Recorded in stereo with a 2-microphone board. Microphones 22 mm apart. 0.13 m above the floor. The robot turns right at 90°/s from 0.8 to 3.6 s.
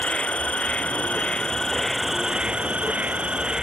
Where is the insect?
70° left; by 3.6 s 35° right.